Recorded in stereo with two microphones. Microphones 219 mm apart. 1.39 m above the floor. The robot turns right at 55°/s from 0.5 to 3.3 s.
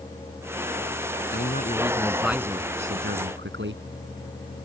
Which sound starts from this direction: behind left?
A man speaking, at 1.3 s.